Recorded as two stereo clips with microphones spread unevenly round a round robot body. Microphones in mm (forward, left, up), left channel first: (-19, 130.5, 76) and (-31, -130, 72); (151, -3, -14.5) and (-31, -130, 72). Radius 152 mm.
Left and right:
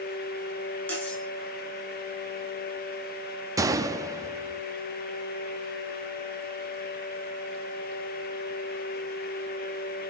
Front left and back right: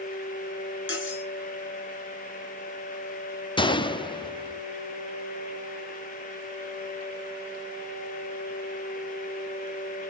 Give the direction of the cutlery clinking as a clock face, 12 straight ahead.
12 o'clock.